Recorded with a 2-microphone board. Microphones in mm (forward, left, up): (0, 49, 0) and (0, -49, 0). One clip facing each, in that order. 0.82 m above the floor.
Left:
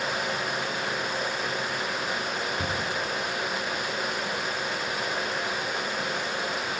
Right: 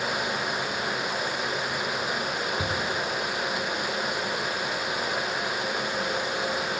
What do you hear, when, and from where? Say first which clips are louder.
2.6 s a cupboard door: right 1 dB; 5° right (ahead or behind), 6.5 m